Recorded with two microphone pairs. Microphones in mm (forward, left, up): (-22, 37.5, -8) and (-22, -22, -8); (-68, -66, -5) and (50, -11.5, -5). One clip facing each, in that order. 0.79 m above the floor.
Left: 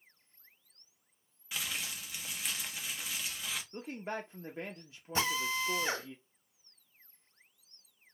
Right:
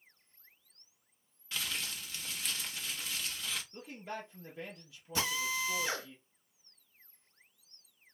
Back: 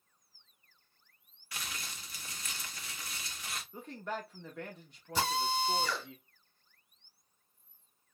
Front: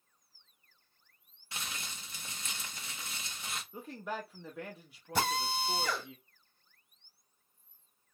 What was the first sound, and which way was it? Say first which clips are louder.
Crumpling: even, front 1 dB; 35° left.